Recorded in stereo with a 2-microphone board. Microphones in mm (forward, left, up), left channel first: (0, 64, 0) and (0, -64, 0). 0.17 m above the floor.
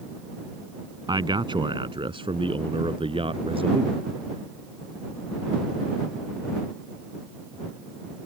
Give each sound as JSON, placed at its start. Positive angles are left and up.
{"t": 1.1, "sound": "a man speaking", "side_deg": -35}